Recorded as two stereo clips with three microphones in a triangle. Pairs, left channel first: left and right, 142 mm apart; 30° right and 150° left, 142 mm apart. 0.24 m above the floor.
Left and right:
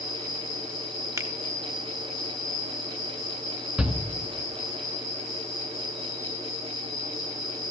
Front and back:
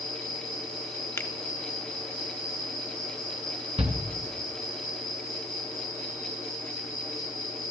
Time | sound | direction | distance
0.0 | an insect | 140° left | 6.5 m
1.2 | a finger snap | 75° right | 0.8 m
3.8 | a shout | 175° right | 2 m